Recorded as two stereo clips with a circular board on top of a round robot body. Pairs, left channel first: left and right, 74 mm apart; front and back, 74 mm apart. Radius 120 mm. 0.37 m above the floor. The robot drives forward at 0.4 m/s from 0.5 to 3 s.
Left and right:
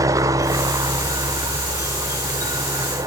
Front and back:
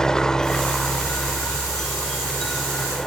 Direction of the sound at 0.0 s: 80° right.